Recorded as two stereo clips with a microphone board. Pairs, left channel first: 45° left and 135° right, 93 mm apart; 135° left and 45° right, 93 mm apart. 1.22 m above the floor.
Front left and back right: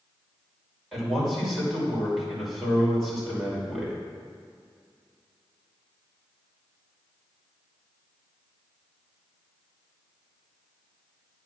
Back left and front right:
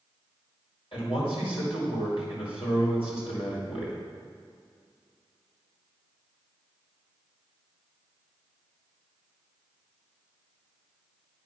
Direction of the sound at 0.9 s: 135° left.